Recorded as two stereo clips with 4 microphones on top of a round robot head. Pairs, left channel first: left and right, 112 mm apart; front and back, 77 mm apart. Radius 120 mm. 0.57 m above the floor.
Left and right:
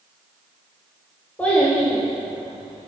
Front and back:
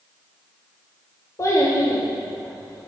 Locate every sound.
1.4 s a child speaking: 20° left, 1.0 m; by 2.9 s 20° right, 1.4 m